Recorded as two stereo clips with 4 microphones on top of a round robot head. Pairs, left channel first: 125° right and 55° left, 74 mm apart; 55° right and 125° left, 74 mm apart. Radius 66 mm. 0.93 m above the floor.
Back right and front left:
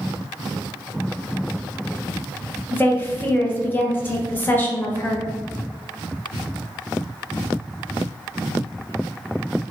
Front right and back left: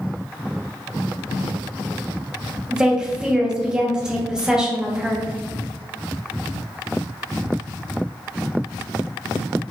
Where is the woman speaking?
160° right, 0.9 m.